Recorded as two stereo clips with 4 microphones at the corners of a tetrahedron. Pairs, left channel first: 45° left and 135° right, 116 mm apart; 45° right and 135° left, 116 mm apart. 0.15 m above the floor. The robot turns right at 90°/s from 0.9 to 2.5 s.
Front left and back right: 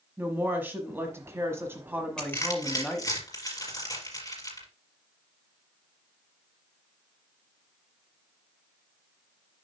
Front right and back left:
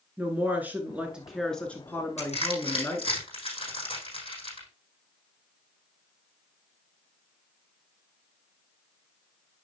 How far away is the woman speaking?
About 1.1 m.